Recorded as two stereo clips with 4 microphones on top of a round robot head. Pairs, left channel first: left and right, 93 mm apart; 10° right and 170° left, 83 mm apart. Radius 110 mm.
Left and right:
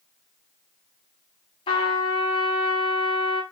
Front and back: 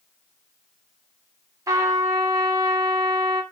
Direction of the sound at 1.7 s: 115° left.